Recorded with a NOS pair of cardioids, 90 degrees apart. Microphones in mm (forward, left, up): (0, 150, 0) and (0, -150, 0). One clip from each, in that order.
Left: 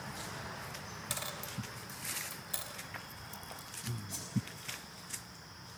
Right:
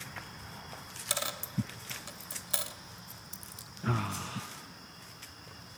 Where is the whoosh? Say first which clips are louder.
Right 5 dB; 25° left, 6.5 m.